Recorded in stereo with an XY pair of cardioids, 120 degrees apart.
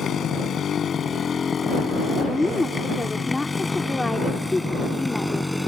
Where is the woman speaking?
15° left.